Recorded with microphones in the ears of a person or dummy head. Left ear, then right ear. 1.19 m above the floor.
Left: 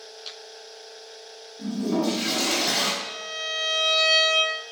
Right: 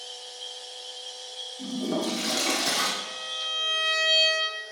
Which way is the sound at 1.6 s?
80° right.